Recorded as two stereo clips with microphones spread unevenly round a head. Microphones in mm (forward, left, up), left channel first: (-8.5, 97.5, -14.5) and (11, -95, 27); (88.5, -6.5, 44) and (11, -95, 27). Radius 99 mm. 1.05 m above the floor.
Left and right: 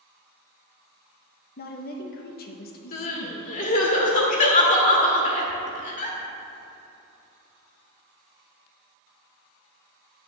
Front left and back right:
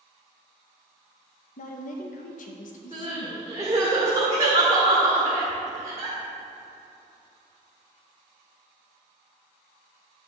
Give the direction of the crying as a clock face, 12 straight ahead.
7 o'clock.